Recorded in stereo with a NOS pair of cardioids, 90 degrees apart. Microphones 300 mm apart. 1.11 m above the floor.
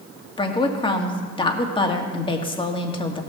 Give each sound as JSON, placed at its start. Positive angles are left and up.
{"t": 0.4, "sound": "a woman speaking", "azimuth_deg": 15, "distance_m": 1.9}